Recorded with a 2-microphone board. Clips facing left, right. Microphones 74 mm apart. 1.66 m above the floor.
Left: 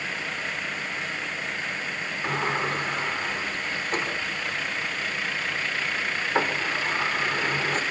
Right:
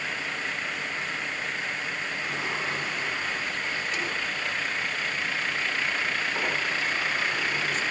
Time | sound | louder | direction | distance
2.2 | a sliding door | left 7 dB | 50° left (ahead or behind) | 5 m